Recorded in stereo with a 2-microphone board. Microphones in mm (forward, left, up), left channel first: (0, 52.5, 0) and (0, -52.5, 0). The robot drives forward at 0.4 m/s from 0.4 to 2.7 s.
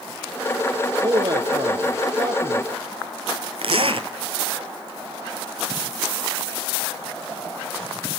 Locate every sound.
1.0 s a man speaking: 40° right (ahead or behind), 2 m
3.6 s a zipper: 60° right (ahead or behind), 1.3 m